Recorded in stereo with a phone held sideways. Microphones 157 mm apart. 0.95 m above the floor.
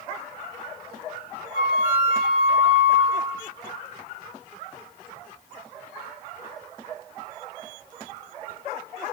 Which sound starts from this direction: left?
A flute, at 1.5 s.